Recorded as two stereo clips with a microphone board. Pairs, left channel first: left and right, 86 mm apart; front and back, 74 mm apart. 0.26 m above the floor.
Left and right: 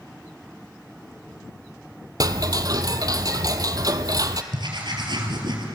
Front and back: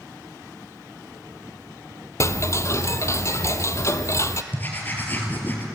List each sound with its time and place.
2.2 s ticking: 50° right, 1.1 m
4.5 s writing: 65° right, 4 m